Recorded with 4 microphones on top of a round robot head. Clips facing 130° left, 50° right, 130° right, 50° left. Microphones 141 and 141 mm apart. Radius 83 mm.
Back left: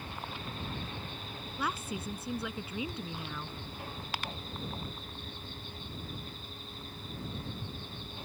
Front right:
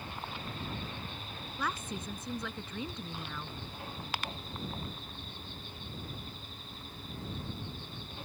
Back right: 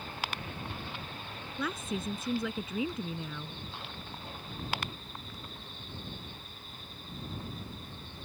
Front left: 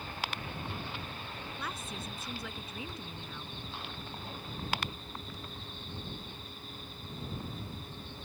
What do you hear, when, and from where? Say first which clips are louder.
1.6 s a woman speaking: back left 1 dB, back right 9 dB; 145° right